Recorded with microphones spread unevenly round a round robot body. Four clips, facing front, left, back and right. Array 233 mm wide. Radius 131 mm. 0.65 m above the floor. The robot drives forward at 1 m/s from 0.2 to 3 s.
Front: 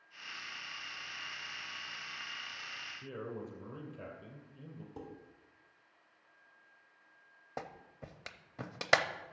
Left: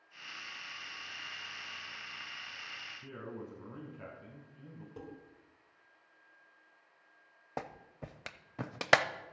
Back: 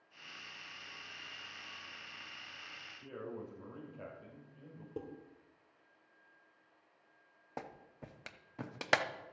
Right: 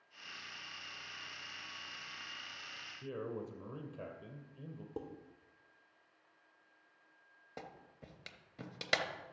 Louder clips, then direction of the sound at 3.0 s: Right 4 dB, front 2 dB; 70° right.